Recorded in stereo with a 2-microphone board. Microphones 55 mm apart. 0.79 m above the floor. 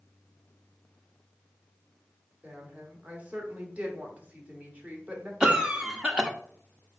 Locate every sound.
2.4 s a woman speaking: 25° right (ahead or behind), 2 m
5.4 s a cough: 15° right (ahead or behind), 1.0 m